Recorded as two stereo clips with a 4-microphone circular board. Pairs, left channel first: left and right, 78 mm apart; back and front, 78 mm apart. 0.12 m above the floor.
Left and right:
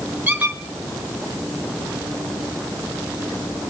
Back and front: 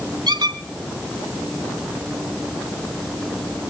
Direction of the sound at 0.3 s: 20° right.